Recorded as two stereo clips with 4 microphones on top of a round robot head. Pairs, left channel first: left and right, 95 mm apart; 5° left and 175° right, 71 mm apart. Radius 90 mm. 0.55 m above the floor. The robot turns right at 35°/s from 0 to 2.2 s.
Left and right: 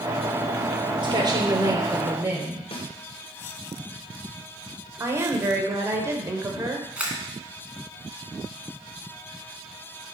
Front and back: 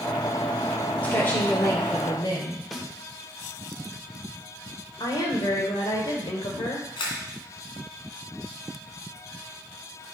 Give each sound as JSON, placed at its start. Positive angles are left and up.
{"t": 1.0, "sound": "a woman speaking", "azimuth_deg": -65, "distance_m": 2.5}
{"t": 2.7, "sound": "a snare drum", "azimuth_deg": 90, "distance_m": 1.8}
{"t": 5.0, "sound": "a woman speaking", "azimuth_deg": -30, "distance_m": 2.0}
{"t": 7.0, "sound": "a camera shutter", "azimuth_deg": -15, "distance_m": 2.0}